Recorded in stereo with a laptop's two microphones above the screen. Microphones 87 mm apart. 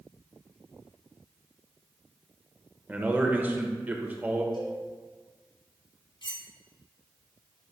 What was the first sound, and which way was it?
A man speaking, 20° right (ahead or behind).